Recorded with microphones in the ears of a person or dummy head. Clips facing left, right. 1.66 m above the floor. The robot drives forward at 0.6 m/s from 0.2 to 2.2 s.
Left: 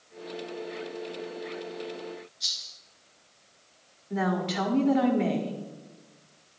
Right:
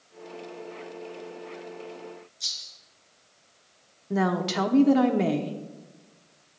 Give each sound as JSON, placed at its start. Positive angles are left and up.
{"t": 2.4, "sound": "a rattle", "side_deg": -35, "distance_m": 4.0}
{"t": 4.1, "sound": "a woman speaking", "side_deg": -50, "distance_m": 0.8}